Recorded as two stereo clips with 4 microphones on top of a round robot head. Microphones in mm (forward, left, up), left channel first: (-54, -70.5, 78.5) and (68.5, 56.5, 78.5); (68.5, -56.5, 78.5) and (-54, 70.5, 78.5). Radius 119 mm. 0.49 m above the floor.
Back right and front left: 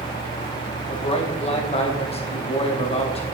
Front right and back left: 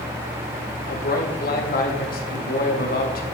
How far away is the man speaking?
About 2.5 m.